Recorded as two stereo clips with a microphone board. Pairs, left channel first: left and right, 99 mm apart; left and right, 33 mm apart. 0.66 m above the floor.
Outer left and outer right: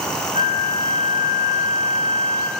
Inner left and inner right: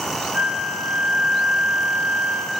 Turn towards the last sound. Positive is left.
turn(degrees=-60)  # may be behind; listen again after turning